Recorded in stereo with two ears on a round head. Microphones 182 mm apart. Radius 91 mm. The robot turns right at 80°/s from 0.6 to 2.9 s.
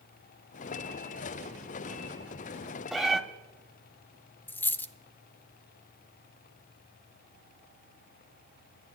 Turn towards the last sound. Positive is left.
turn(degrees=10)  # may be behind; listen again after turning